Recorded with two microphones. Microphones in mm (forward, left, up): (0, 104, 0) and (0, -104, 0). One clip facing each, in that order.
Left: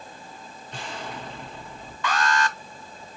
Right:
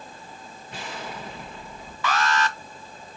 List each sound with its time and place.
0.7 s an explosion: 5° right (ahead or behind), 1.1 m
2.0 s an alarm: 5° right (ahead or behind), 1.1 m